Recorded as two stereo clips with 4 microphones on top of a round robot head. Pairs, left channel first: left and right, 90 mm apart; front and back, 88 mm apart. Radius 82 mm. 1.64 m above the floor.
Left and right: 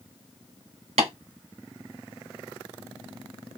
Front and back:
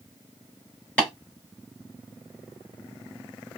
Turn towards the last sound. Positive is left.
turn(degrees=-80)